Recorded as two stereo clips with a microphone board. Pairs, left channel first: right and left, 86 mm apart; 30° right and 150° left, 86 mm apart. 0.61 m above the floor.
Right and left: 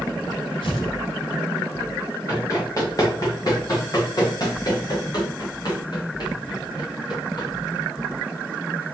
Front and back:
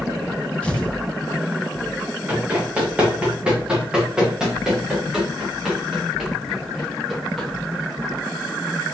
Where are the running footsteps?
140° right, 6 m; by 7.5 s 120° right, 8 m.